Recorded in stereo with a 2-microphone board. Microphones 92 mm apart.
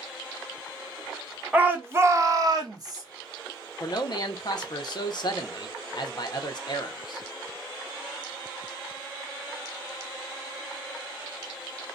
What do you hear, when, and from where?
1.5 s a shout: 15° right (ahead or behind), 0.8 m; by 3.0 s 40° right (ahead or behind), 0.8 m
3.8 s a man speaking: 50° left (ahead or behind), 0.7 m